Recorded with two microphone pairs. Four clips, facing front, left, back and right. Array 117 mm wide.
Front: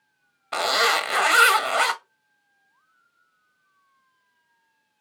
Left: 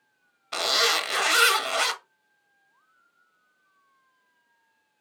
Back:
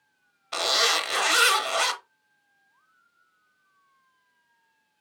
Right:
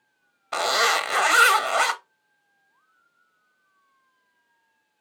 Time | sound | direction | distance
0.5 | a zipper | 60° right | 0.7 m